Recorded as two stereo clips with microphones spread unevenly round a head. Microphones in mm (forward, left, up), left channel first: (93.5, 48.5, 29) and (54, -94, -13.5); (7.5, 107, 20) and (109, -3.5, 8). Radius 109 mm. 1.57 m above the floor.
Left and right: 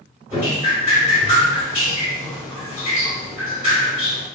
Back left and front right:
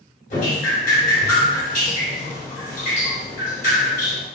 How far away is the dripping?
About 1.6 m.